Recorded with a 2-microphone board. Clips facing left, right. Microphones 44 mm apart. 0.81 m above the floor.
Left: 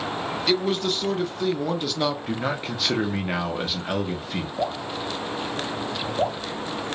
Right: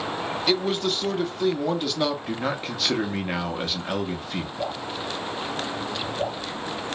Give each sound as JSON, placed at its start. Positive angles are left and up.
{"t": 0.5, "sound": "a man speaking", "side_deg": 0, "distance_m": 0.5}
{"t": 2.3, "sound": "a man speaking", "side_deg": 5, "distance_m": 0.5}
{"t": 4.6, "sound": "dripping", "side_deg": 45, "distance_m": 0.7}